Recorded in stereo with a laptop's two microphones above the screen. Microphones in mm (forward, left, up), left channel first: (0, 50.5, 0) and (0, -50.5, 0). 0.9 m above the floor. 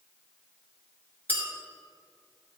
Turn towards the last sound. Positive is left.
turn(degrees=15)  # may be behind; listen again after turning